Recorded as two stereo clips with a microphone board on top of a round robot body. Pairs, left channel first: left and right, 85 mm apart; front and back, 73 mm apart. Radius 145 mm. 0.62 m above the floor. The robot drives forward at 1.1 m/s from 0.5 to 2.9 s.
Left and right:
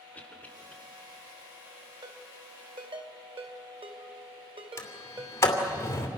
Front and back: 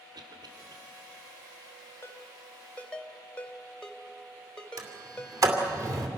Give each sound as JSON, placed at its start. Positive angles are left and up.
{"t": 0.1, "sound": "a cough", "azimuth_deg": 160, "distance_m": 3.0}
{"t": 2.0, "sound": "a ringtone", "azimuth_deg": -55, "distance_m": 2.5}
{"t": 4.8, "sound": "a sliding door", "azimuth_deg": 145, "distance_m": 2.5}